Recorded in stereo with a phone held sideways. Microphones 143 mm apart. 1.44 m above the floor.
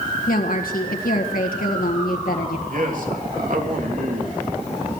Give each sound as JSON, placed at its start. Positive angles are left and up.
{"t": 0.3, "sound": "a woman speaking", "side_deg": 85, "distance_m": 1.6}
{"t": 2.7, "sound": "a man speaking", "side_deg": -70, "distance_m": 3.0}